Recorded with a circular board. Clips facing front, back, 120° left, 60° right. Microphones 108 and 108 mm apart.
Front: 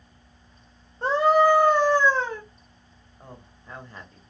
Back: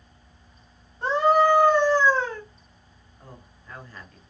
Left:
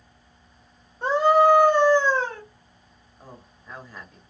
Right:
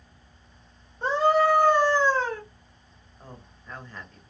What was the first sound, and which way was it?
A scream, 45° left.